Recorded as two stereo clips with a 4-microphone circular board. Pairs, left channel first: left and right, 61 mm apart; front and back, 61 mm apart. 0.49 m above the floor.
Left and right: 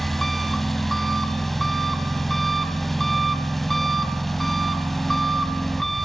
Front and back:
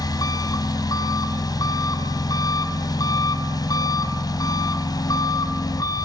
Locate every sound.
0.0 s an engine running: 5° left, 1.5 m